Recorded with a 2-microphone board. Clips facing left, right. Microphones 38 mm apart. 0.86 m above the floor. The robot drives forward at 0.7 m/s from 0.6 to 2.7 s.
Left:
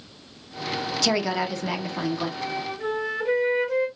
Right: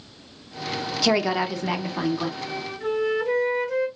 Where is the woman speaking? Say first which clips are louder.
Right 3 dB; 10° right (ahead or behind), 0.6 m; by 2.3 s 5° right (ahead or behind), 1.4 m.